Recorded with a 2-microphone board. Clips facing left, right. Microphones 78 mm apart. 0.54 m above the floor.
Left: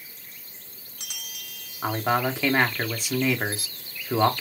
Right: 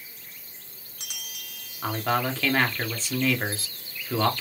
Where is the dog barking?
No dog barking in this recording.